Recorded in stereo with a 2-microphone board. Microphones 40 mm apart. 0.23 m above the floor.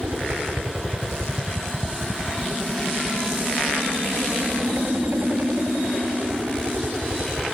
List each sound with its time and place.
0.0 s a helicopter: 60° right (ahead or behind)